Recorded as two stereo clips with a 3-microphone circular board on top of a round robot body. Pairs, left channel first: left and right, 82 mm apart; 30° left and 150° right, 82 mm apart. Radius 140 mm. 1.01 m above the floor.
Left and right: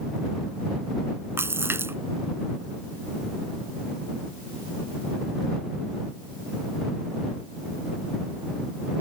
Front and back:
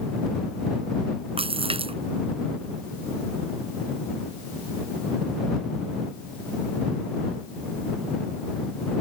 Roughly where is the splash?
Behind right.